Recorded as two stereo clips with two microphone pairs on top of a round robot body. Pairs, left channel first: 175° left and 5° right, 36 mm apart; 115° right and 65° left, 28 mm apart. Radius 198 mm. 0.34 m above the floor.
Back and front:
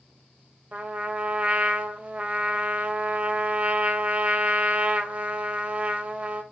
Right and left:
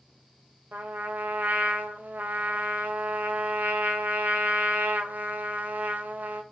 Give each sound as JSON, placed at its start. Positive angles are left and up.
{"t": 0.7, "sound": "a trumpet", "azimuth_deg": 50, "distance_m": 0.7}